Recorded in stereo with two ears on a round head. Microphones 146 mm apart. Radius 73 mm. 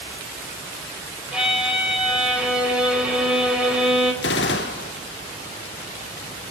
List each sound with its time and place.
1.3 s a violin: 5° right (ahead or behind), 3.5 m
4.2 s a gunshot: 70° left (ahead or behind), 1.1 m